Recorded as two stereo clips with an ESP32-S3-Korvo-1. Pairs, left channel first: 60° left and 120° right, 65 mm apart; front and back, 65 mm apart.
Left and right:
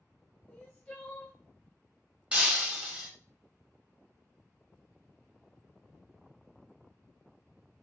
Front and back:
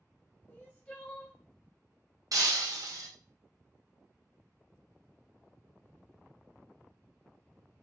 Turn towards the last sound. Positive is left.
turn(degrees=170)